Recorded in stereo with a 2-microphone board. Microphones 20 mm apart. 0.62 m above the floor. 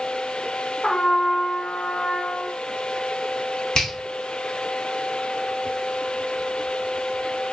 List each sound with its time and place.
0.8 s a trumpet: 45° left (ahead or behind), 2.0 m
3.8 s a finger snap: 40° left (ahead or behind), 1.2 m